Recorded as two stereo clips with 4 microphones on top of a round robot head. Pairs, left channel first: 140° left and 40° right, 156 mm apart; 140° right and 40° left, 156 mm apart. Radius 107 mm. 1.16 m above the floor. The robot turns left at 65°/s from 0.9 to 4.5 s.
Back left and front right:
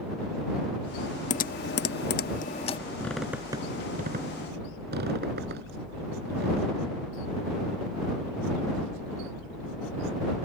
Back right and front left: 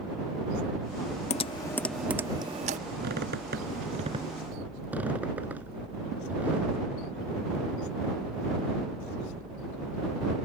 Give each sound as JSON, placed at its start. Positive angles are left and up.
{"t": 1.3, "sound": "typing on a keyboard", "azimuth_deg": 175}
{"t": 3.0, "sound": "a squeak", "azimuth_deg": 60}